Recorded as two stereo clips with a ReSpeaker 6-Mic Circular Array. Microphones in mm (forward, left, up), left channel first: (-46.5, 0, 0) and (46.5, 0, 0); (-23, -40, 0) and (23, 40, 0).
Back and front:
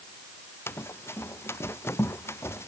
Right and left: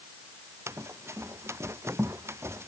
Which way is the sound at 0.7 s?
120° left.